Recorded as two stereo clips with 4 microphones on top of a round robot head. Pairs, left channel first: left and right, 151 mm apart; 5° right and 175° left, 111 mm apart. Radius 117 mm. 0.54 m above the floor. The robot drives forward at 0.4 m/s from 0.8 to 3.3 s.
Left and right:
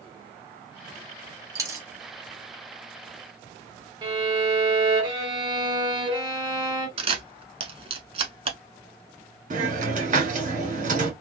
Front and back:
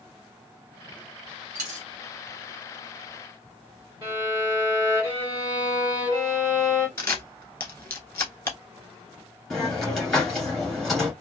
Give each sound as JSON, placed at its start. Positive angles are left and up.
{"t": 1.6, "sound": "a dropped coin", "azimuth_deg": -155, "distance_m": 0.6}
{"t": 4.0, "sound": "a violin", "azimuth_deg": -145, "distance_m": 2.0}
{"t": 7.0, "sound": "a camera shutter", "azimuth_deg": -65, "distance_m": 0.9}
{"t": 9.5, "sound": "a hiss", "azimuth_deg": -90, "distance_m": 1.9}